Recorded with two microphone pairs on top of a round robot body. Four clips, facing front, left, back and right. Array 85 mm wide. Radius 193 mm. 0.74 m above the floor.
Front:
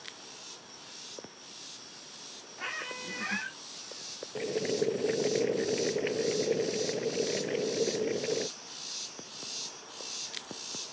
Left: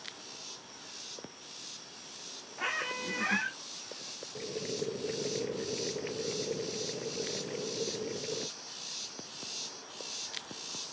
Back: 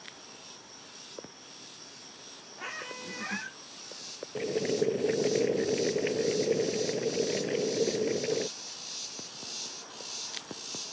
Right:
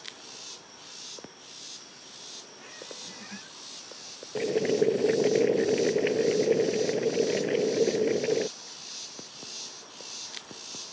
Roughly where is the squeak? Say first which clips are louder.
Left 12 dB, front 1 dB; left.